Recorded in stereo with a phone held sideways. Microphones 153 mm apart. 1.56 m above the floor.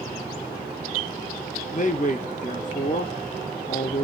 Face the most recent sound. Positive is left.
turn(degrees=50)  # may be behind; listen again after turning